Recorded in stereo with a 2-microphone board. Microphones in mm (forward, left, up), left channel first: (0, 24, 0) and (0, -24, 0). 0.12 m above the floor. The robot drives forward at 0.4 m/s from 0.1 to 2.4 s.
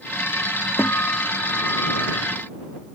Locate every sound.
0.8 s a guitar: 60° left (ahead or behind); by 2.2 s 70° left (ahead or behind)